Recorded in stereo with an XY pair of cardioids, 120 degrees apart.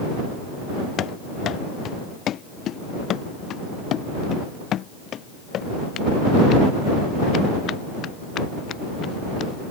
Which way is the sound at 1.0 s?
60° left.